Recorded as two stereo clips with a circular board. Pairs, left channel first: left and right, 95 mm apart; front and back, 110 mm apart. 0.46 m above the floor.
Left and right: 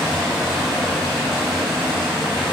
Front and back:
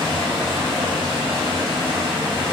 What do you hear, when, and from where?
0.0 s running water: 175° right, 1.7 m